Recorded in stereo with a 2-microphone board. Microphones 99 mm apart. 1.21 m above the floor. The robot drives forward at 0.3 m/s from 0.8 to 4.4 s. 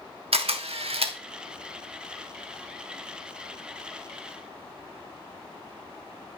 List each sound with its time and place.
0.3 s a camera shutter: 75° right (ahead or behind), 1.5 m; by 1.2 s 70° right (ahead or behind), 1.5 m